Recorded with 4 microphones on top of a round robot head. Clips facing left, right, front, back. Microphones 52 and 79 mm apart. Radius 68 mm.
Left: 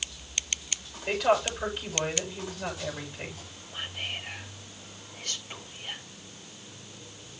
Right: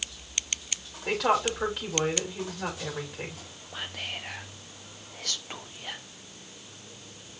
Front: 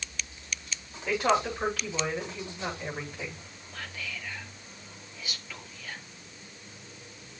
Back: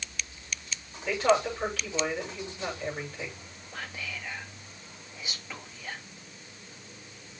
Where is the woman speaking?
85° right, 7 m.